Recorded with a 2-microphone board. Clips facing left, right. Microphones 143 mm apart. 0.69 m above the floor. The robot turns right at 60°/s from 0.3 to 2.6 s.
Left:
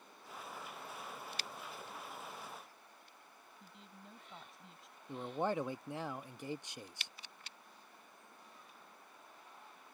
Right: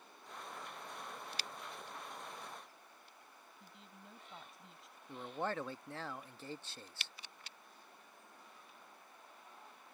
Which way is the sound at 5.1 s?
15° left (ahead or behind).